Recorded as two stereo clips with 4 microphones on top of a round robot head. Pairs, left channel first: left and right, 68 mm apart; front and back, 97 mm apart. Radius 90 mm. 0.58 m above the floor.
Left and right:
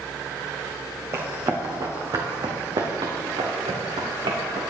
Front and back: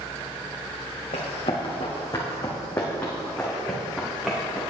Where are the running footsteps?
40° right, 3 m; by 4.6 s 95° right, 3.5 m.